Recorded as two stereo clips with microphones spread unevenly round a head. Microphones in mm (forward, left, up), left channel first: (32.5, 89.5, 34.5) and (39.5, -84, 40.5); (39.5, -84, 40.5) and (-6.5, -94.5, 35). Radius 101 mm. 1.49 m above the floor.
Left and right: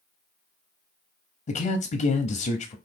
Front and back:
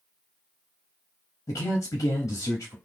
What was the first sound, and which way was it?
A man speaking, 40° left.